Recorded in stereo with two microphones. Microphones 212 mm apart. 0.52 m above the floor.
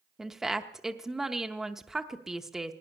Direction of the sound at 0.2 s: Centre (ahead or behind).